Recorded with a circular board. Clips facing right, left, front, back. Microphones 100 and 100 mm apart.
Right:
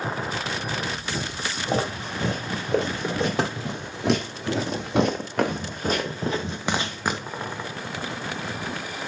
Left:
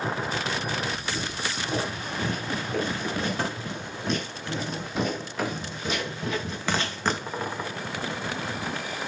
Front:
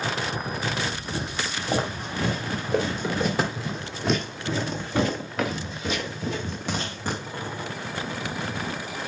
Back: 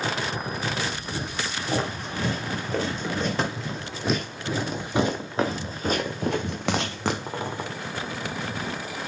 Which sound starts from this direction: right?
Footsteps, at 1.1 s.